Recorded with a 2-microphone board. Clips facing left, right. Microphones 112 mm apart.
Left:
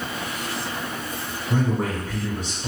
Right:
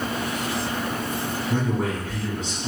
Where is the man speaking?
35° left (ahead or behind), 1.3 m.